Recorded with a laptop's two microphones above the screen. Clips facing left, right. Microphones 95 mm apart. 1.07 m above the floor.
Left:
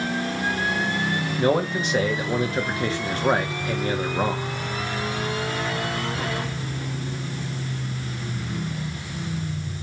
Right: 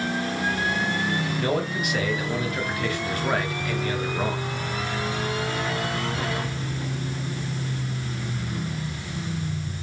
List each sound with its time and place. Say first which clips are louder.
1.4 s a man speaking: left 8 dB; 30° left (ahead or behind), 1.1 m